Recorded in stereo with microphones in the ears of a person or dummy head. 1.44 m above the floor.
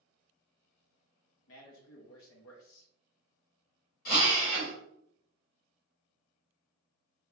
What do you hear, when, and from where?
1.5 s a man speaking: 70° left (ahead or behind), 0.7 m
4.0 s a drill: 50° left (ahead or behind), 1.9 m